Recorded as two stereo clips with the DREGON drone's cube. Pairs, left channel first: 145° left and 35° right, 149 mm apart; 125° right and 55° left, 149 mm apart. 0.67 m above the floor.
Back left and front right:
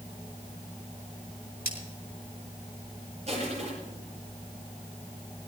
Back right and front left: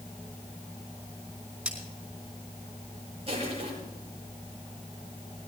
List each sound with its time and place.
1.6 s cutlery clinking: 140° left, 3.5 m
3.3 s crushing: 10° left, 7.5 m